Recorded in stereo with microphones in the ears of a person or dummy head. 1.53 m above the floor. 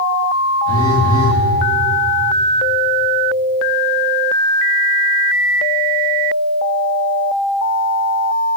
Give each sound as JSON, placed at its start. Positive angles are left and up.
{"t": 0.7, "sound": "a phone buzzing", "side_deg": 20, "distance_m": 1.6}